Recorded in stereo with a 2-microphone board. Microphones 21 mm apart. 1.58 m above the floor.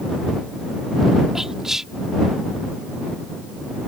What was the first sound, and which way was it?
Whispering, 20° right (ahead or behind).